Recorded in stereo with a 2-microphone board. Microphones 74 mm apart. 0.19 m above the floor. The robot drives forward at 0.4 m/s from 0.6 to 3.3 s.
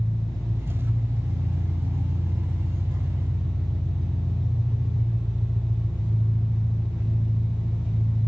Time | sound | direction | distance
0.0 | an engine running | 45° right (ahead or behind) | 1.2 m